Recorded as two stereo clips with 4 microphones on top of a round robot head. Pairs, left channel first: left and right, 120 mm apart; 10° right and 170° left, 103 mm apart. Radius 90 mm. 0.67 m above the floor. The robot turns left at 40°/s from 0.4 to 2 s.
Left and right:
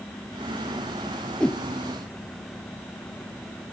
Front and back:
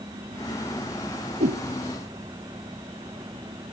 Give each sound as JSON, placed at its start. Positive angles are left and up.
{"t": 1.4, "sound": "a whoosh", "azimuth_deg": 175}